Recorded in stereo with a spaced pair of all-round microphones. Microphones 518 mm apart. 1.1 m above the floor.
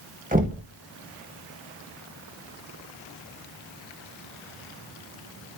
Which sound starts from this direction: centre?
Knocking, at 0.3 s.